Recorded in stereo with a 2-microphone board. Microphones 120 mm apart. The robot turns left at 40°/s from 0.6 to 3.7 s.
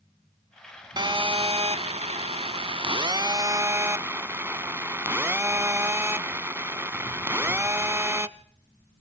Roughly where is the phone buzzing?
Ahead right.